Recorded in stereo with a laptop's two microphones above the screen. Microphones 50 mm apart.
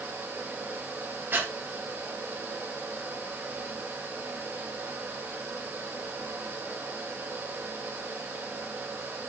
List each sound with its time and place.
0.0 s a fan: 50° right (ahead or behind), 3 m
1.3 s breathing: 45° right (ahead or behind), 1.5 m